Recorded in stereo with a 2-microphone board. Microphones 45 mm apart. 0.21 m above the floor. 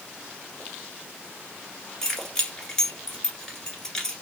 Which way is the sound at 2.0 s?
10° left (ahead or behind).